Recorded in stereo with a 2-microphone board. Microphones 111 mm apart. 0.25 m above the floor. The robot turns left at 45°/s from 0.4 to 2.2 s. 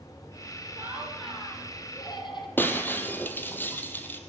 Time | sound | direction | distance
0.8 | laughter | 160° right | 6.5 m
2.6 | breaking glass | 15° left (ahead or behind) | 3 m